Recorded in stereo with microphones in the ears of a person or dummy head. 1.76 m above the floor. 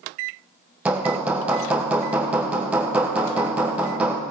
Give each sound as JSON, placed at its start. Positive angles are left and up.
{"t": 0.8, "sound": "hammering", "side_deg": -10, "distance_m": 1.1}